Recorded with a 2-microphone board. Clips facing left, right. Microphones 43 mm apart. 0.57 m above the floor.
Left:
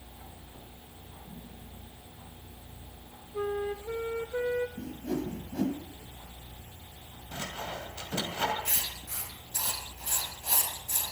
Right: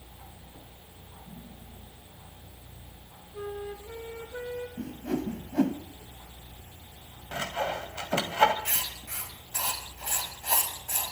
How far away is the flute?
About 1.3 m.